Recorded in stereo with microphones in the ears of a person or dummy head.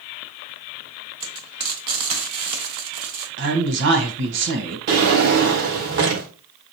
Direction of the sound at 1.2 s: 55° right (ahead or behind).